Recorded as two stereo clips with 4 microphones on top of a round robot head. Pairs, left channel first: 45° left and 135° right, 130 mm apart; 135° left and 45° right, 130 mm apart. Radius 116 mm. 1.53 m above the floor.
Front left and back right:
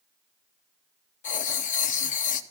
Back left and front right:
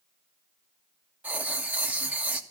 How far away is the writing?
About 0.6 m.